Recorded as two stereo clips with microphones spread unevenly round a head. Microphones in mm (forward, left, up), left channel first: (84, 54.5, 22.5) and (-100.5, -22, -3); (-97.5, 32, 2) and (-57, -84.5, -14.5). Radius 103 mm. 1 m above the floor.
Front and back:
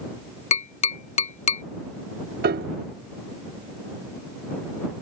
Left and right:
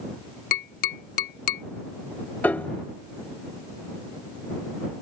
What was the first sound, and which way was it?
Tapping, 80° left.